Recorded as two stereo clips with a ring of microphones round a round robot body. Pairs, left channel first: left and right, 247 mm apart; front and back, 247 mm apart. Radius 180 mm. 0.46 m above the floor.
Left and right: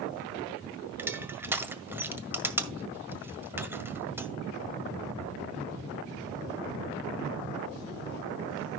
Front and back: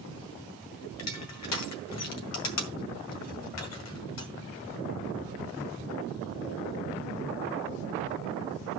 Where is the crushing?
10° right, 1.8 m.